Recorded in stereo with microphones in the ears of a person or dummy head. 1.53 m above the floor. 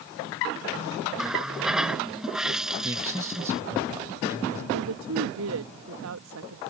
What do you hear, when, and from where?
1.2 s a running tap: centre (ahead or behind)
2.8 s a man speaking: 10° right (ahead or behind)
4.7 s a woman speaking: 80° right